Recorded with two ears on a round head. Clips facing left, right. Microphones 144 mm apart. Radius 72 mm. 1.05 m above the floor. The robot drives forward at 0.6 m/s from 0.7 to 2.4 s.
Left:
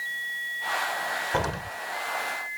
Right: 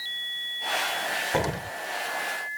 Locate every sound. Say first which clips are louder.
1.3 s an explosion: right 2 dB; 20° right (ahead or behind); by 1.8 s 15° right (ahead or behind)